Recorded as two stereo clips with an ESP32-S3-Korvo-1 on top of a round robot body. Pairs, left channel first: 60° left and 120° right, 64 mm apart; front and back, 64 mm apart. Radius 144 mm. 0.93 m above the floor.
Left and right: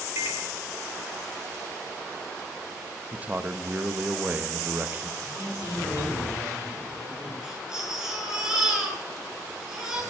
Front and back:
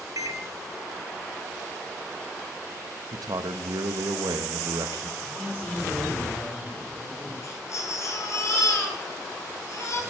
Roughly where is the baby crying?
Ahead right.